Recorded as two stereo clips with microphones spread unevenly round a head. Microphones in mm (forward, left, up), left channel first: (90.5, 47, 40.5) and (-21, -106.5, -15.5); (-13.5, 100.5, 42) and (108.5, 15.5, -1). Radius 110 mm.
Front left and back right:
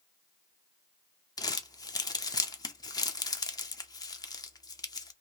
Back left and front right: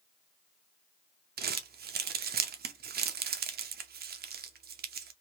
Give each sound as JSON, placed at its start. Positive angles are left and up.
{"t": 1.4, "sound": "crumpling", "azimuth_deg": -15, "distance_m": 0.7}